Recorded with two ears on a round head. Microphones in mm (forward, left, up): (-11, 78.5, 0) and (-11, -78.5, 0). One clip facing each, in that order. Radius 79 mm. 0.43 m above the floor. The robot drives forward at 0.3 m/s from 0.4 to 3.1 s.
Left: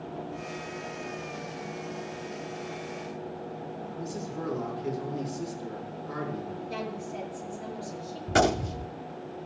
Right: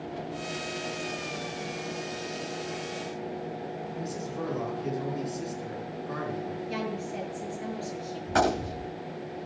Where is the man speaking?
5° right (ahead or behind), 5 m.